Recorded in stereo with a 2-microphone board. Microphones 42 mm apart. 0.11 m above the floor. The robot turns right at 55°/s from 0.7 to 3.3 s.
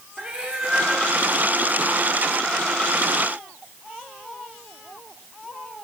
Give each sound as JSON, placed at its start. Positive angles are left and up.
{"t": 0.2, "sound": "a cat meowing", "side_deg": -20, "distance_m": 5.5}